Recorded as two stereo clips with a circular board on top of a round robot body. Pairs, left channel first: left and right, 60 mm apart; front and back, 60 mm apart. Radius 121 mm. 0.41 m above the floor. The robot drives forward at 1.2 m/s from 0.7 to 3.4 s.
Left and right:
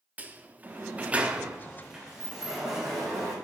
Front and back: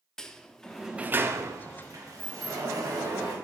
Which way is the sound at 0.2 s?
70° right.